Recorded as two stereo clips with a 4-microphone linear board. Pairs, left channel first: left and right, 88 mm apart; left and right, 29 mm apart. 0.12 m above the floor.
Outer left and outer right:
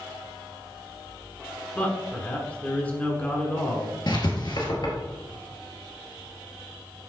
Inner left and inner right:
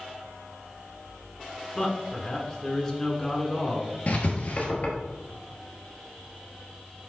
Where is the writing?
55° left (ahead or behind), 1.5 m.